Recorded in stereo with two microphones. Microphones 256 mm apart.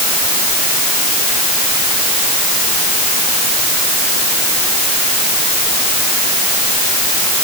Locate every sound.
Only background noise.